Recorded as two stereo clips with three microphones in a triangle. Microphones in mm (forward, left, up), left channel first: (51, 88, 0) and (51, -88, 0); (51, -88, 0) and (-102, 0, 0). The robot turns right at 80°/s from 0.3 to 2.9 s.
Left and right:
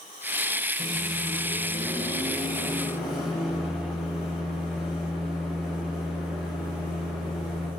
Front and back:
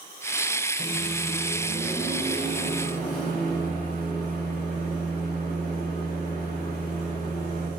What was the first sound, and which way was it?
A microwave, 170° right.